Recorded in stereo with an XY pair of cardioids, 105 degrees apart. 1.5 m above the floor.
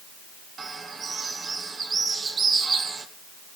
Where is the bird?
35° right, 2.5 m.